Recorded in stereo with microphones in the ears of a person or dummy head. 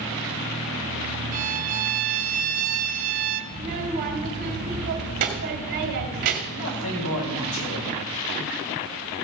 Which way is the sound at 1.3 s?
40° right (ahead or behind).